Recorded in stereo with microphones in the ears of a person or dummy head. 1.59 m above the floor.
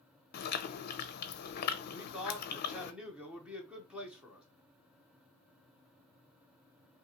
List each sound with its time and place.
0.3 s chewing: 50° left (ahead or behind), 0.5 m
1.9 s a man speaking: 5° right (ahead or behind), 0.8 m